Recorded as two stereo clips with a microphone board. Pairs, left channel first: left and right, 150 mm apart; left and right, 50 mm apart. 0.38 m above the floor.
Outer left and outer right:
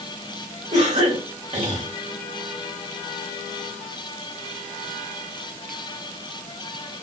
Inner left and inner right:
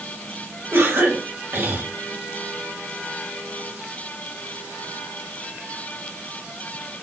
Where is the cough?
55° right (ahead or behind), 2.0 m.